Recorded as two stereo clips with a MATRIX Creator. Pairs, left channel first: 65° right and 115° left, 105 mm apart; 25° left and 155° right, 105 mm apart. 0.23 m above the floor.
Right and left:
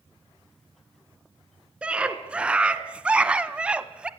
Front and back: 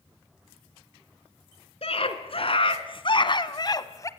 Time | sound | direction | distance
1.8 | a scream | 35° left | 2.5 m